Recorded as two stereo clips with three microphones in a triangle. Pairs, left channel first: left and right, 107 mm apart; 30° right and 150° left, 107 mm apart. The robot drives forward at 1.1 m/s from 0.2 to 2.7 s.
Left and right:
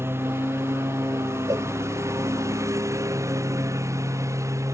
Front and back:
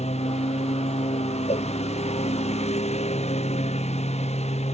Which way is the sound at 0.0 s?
20° right.